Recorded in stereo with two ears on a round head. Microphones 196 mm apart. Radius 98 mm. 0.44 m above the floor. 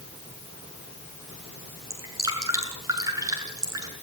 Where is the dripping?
15° right (ahead or behind), 7 m.